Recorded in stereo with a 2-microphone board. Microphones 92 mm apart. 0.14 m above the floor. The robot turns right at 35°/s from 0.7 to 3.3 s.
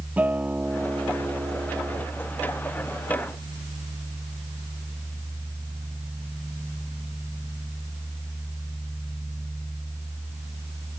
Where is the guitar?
160° right; by 2.1 s 115° right.